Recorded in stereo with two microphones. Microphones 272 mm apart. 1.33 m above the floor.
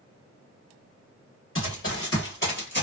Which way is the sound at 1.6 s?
45° left (ahead or behind).